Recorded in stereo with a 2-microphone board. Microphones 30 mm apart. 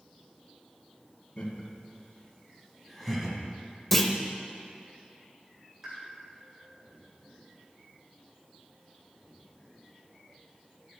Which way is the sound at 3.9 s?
10° left (ahead or behind).